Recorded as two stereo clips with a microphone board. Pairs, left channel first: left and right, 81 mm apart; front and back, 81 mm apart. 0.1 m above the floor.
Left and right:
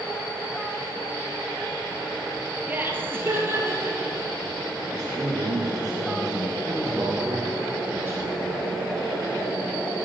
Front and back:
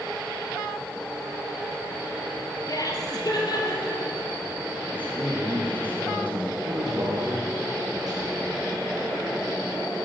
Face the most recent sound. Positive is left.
turn(degrees=-150)